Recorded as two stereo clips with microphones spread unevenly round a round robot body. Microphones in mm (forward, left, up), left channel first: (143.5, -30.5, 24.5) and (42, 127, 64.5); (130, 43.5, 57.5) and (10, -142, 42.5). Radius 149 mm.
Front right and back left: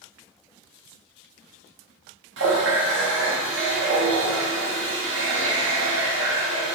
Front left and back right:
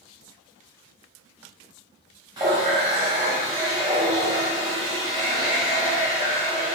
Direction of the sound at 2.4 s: 160° left.